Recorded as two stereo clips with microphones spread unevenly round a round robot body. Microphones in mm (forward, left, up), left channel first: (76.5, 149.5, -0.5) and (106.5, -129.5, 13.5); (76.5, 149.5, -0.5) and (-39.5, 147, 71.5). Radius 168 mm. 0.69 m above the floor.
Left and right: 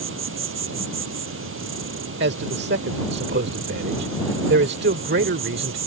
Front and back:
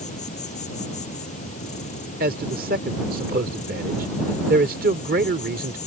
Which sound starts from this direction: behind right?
A man speaking, at 2.2 s.